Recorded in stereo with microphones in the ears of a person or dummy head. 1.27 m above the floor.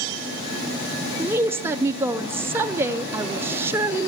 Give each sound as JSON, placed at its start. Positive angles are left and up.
{"t": 1.2, "sound": "a woman speaking", "side_deg": -20, "distance_m": 0.6}